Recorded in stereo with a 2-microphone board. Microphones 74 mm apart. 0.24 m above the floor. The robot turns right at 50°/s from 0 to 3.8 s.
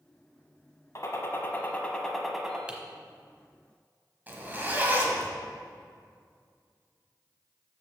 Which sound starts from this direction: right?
A zipper, at 4.3 s.